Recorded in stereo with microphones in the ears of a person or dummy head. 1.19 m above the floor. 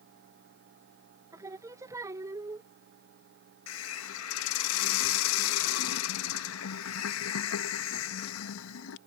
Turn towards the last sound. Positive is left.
turn(degrees=75)  # may be behind; listen again after turning